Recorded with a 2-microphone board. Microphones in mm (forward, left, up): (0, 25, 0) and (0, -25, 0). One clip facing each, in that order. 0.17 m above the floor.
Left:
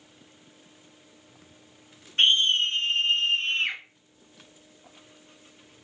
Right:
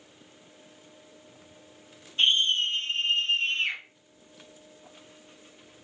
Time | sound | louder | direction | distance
2.2 | a scream | left 2 dB | 50° left (ahead or behind) | 2.5 m